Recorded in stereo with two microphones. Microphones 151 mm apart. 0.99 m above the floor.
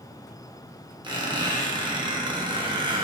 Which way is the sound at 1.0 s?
30° right (ahead or behind).